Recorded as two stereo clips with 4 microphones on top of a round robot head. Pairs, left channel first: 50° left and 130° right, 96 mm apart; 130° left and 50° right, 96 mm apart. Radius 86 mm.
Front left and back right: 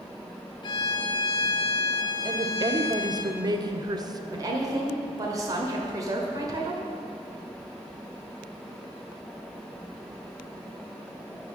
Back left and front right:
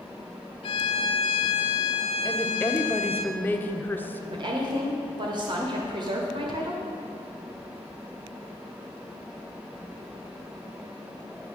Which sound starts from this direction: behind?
A woman speaking, at 2.2 s.